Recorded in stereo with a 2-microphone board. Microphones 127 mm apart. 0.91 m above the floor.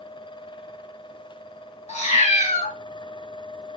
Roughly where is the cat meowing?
Left.